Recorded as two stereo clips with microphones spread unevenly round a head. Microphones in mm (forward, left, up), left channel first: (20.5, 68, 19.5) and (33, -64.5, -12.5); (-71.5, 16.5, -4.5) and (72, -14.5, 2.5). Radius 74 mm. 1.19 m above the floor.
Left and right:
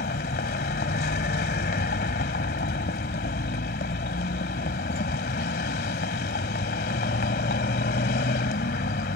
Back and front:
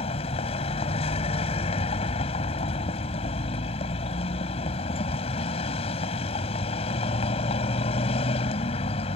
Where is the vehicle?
115° left.